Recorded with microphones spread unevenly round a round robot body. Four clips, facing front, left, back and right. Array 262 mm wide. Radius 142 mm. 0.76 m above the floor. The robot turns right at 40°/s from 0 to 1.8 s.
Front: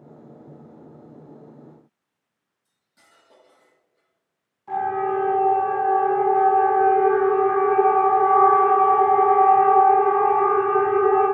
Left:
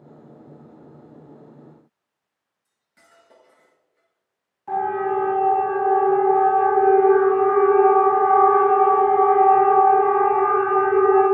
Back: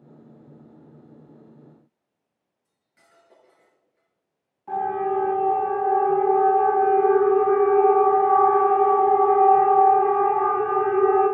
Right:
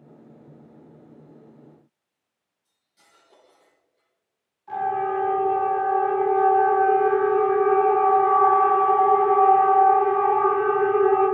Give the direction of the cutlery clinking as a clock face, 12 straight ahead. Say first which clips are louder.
Left 5 dB, front 1 dB; 10 o'clock.